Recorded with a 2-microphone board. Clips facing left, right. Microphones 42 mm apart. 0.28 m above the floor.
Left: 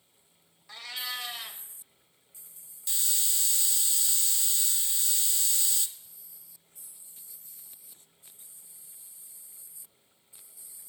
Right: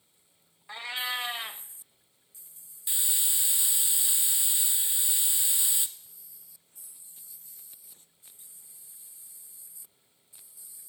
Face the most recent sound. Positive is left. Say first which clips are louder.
# even
turn(degrees=-15)  # may be behind; listen again after turning